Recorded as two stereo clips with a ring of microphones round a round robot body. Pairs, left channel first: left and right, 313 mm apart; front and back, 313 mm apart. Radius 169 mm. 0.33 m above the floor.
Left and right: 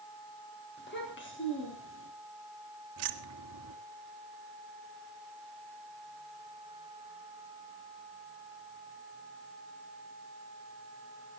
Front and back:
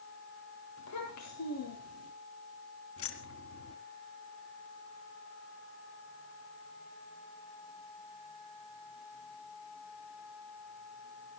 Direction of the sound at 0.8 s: 35° left.